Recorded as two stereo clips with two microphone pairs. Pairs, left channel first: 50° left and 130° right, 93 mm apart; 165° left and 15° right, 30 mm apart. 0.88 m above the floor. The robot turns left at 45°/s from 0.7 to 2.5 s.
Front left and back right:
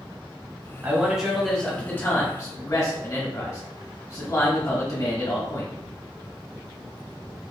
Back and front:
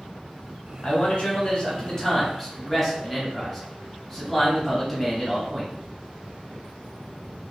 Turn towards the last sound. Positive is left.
turn(degrees=85)